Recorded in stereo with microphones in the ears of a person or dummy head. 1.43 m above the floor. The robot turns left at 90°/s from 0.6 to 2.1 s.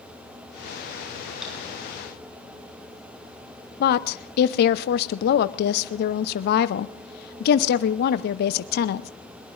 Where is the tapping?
Centre (ahead or behind), 8.5 m; by 1.5 s 10° right (ahead or behind), 8.5 m.